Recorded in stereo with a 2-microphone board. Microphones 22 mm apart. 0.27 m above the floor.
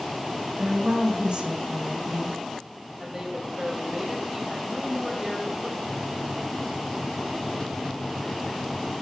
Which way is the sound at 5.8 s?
25° left (ahead or behind).